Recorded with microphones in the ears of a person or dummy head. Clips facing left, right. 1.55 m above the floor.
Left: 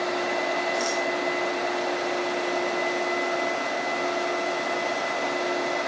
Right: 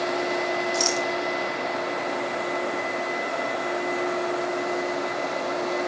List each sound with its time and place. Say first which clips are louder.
0.7 s a rattle: right 1 dB; 70° right (ahead or behind), 1.2 m